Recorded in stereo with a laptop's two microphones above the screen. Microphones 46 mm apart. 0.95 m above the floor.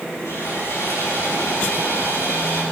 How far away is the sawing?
About 9.5 m.